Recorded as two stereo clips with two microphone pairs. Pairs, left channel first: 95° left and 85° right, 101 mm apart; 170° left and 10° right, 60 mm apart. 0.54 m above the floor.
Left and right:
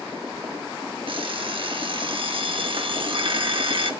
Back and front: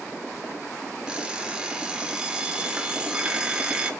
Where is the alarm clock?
85° right, 0.9 m.